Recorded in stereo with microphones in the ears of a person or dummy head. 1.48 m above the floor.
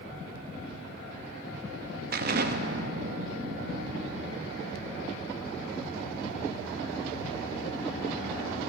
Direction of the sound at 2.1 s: 55° right (ahead or behind).